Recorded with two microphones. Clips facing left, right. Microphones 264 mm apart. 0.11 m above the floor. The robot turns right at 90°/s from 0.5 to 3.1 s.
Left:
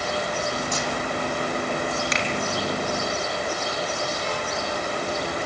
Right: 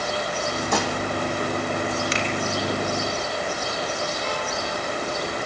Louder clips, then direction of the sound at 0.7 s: Right 4 dB; 65° right (ahead or behind).